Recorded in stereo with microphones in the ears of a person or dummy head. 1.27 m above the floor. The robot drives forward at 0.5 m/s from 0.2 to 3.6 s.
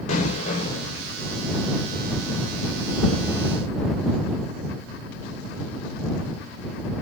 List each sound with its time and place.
0.1 s an explosion: 45° left (ahead or behind), 2 m; by 1.0 s 40° left (ahead or behind), 2.5 m